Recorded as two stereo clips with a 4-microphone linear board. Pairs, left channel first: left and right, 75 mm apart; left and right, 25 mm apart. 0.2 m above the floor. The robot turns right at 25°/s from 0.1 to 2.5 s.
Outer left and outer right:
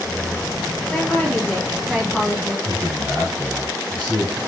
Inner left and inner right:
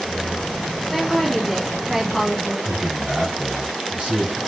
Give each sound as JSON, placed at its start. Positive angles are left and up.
{"t": 0.9, "sound": "a woman speaking", "azimuth_deg": 140, "distance_m": 1.1}
{"t": 2.6, "sound": "a man speaking", "side_deg": -55, "distance_m": 1.9}